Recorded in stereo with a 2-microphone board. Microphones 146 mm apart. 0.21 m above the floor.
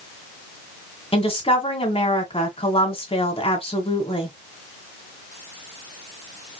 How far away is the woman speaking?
About 1.9 m.